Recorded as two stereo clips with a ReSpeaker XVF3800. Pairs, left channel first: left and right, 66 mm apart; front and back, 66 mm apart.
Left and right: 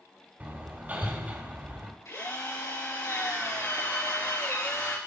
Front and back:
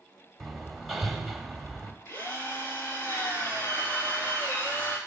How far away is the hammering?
About 1.1 m.